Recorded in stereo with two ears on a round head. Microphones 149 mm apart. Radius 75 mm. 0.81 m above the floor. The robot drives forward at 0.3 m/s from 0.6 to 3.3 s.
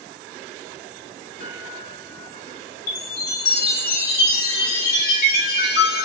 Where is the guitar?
70° left (ahead or behind), 1.8 m.